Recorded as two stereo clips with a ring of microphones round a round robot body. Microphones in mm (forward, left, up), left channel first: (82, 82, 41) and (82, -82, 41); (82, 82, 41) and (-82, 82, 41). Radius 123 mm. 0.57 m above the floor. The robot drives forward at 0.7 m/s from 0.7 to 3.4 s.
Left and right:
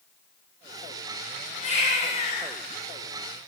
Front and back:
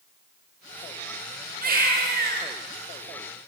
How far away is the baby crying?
About 6.5 m.